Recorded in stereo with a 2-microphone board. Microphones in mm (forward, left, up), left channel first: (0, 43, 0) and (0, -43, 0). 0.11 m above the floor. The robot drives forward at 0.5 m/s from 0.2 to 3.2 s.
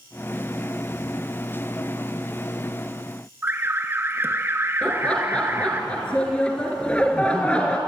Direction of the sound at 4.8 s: 15° left (ahead or behind).